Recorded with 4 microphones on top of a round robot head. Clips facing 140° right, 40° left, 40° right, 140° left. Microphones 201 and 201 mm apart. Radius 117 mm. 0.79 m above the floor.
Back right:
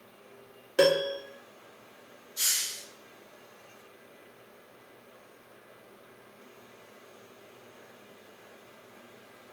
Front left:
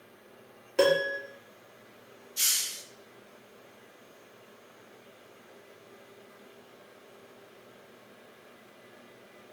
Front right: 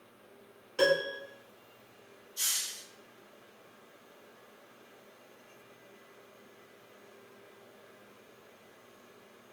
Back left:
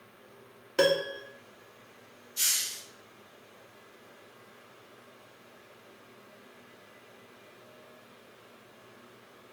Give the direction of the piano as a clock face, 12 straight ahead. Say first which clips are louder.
Back right 1 dB, back left 2 dB; 7 o'clock.